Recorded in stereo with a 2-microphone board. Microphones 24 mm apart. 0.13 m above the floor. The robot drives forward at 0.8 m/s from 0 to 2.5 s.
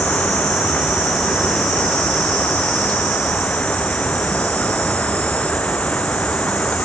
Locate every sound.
0.0 s an insect: 80° left; by 6.8 s 70° left (ahead or behind)